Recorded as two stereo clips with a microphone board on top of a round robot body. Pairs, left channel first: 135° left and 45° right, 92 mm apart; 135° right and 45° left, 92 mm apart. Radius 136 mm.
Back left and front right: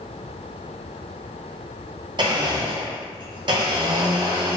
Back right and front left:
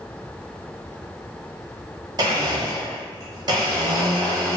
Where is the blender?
Straight ahead, 1.5 m.